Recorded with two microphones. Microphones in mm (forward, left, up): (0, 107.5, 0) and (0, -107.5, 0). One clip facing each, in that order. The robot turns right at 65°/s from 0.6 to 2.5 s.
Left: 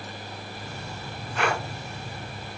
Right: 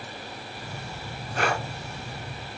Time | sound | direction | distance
1.4 | breathing | 45° right (ahead or behind) | 2 m